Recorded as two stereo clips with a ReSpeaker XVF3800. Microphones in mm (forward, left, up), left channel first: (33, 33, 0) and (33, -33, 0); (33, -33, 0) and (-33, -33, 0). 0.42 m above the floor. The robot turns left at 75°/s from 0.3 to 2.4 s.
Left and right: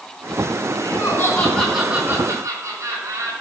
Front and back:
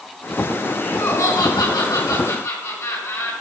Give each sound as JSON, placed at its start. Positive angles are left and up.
{"t": 0.8, "sound": "laughter", "azimuth_deg": 70, "distance_m": 5.0}